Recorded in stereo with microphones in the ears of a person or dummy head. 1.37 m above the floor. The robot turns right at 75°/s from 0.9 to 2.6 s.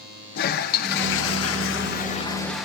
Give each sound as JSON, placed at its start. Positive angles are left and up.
{"t": 0.3, "sound": "a toilet flushing", "azimuth_deg": 60, "distance_m": 0.7}